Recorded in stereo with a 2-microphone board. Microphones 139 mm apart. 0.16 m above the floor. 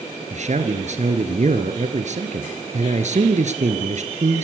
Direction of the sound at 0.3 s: 60° right (ahead or behind).